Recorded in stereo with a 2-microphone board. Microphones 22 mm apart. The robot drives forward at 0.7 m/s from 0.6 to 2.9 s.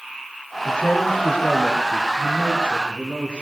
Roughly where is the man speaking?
Left.